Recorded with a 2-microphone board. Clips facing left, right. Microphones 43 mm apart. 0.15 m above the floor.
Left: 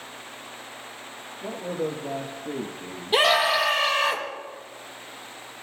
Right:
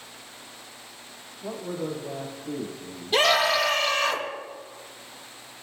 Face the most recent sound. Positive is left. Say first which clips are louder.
# left 1 dB
turn(degrees=15)  # may be behind; listen again after turning